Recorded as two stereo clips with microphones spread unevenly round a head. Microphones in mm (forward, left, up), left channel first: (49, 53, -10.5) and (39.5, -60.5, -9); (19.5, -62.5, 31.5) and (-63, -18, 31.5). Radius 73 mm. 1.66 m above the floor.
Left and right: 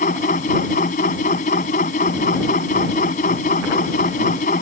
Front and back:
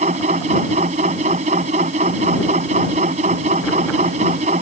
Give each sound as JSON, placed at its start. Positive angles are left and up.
{"t": 0.0, "sound": "a machine running", "azimuth_deg": 120}